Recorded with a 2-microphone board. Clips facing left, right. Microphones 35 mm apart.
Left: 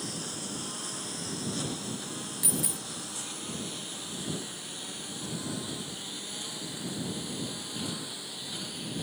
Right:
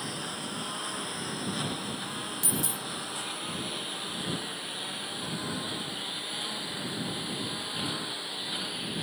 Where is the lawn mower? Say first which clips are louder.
Right 3 dB; 25° right (ahead or behind).